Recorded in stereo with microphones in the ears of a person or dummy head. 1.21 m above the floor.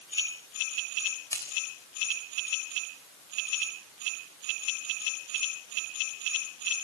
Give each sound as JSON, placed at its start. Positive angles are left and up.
{"t": 1.3, "sound": "scissors", "side_deg": 20, "distance_m": 4.0}